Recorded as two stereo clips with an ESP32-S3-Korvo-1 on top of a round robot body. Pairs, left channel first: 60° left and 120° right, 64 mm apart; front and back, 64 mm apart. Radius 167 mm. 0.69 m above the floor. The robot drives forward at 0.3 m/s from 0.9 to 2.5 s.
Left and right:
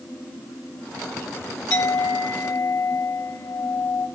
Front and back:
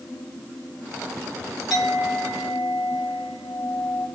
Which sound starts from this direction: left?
A clink, at 1.7 s.